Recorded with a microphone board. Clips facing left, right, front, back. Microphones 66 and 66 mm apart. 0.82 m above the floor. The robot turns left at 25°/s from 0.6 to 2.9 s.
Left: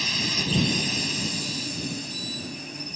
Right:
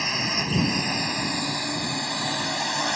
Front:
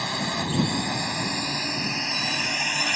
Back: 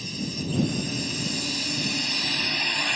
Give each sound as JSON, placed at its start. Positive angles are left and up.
{"t": 0.0, "sound": "a drone", "azimuth_deg": -25}